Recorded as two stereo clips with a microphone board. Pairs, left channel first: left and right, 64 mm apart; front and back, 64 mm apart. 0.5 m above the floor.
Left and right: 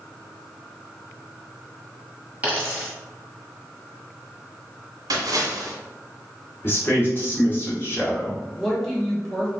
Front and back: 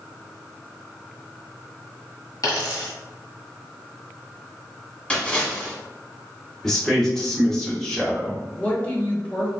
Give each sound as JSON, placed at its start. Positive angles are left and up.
{"t": 2.4, "sound": "a dropped coin", "azimuth_deg": -25, "distance_m": 1.3}
{"t": 5.1, "sound": "a splash", "azimuth_deg": -75, "distance_m": 0.9}
{"t": 6.6, "sound": "a man speaking", "azimuth_deg": 80, "distance_m": 1.2}
{"t": 8.6, "sound": "a woman speaking", "azimuth_deg": 10, "distance_m": 1.0}